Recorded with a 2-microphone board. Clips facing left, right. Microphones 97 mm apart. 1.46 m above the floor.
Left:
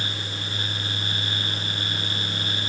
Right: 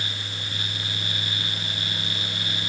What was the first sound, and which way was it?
Only background noise.